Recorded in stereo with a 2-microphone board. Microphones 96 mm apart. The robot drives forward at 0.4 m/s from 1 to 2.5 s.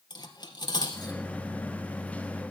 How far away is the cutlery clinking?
About 1.8 m.